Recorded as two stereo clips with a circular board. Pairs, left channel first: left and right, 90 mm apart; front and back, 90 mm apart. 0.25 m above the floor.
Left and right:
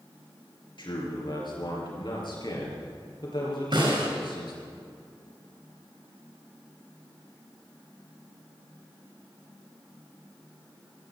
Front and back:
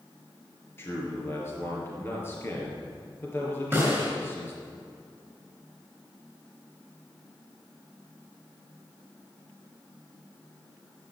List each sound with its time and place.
0.8 s a man speaking: 60° left, 4.5 m
3.7 s a snare drum: 110° right, 4 m